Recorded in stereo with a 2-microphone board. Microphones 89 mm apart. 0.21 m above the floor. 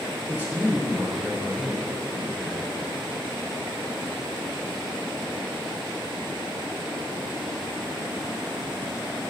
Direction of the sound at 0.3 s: 20° right (ahead or behind).